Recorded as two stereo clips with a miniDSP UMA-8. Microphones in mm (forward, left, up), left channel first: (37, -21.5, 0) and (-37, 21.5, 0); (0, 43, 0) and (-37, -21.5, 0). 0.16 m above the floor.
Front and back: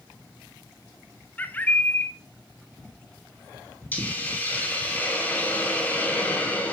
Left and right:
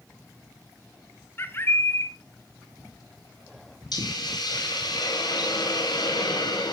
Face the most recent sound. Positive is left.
turn(degrees=40)